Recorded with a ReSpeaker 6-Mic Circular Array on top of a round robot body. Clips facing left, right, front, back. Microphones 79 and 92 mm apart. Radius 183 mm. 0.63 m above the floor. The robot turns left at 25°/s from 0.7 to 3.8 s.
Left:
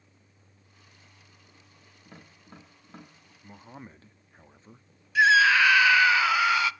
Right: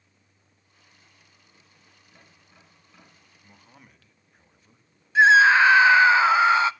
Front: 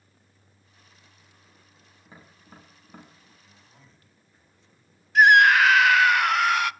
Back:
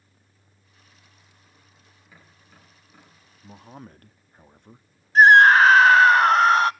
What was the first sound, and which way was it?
Tapping, 60° left.